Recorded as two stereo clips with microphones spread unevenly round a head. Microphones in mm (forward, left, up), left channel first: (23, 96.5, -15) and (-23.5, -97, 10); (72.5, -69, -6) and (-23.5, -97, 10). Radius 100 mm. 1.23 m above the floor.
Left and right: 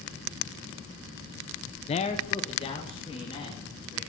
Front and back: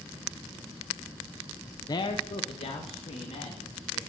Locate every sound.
1.9 s a man speaking: 40° left, 0.7 m; by 4.0 s 10° left, 4 m